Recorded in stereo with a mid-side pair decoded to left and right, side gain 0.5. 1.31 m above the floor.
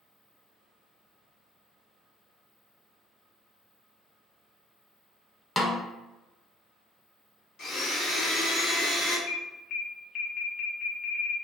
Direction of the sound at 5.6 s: 20° left.